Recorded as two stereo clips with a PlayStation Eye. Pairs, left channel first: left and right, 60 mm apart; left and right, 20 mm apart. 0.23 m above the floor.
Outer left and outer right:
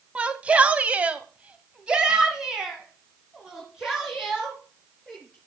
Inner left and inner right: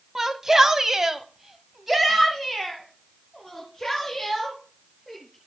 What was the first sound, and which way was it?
A shout, 20° right (ahead or behind).